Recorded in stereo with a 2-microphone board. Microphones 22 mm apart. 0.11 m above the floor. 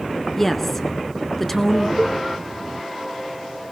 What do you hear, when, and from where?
0.4 s a woman speaking: 15° left (ahead or behind), 1.2 m
2.0 s a cowbell: 25° right (ahead or behind), 1.2 m